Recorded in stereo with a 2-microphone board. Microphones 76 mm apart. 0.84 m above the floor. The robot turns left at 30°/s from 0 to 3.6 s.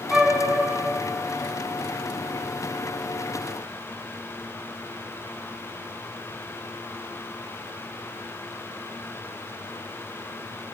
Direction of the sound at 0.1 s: 5° right (ahead or behind).